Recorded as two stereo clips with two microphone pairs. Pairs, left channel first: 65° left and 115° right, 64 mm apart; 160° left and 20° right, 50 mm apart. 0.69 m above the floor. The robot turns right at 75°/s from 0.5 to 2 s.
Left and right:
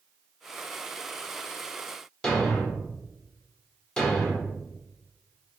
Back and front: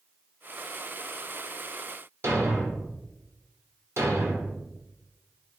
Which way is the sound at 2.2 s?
10° right.